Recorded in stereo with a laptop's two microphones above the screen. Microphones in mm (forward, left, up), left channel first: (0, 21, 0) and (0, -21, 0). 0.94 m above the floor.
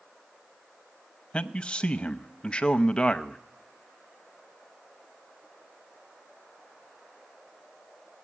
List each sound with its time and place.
1.3 s a man speaking: 25° left (ahead or behind), 0.7 m